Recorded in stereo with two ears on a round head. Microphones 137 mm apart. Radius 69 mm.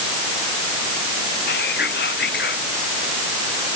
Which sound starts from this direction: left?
Whispering, at 1.5 s.